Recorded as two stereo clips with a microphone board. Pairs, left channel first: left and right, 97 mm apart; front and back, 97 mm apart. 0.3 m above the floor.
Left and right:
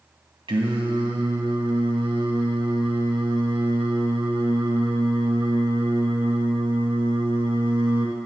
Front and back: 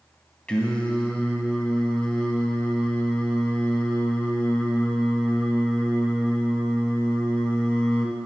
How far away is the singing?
About 1.6 m.